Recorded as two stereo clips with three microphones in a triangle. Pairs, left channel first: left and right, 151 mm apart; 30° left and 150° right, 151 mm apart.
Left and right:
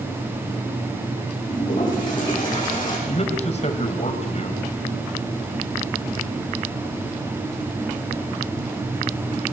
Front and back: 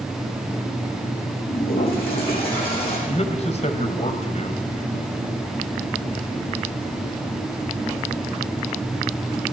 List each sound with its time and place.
1.5 s a toilet flushing: 30° left, 9.5 m
3.1 s a man speaking: 60° left, 2.0 m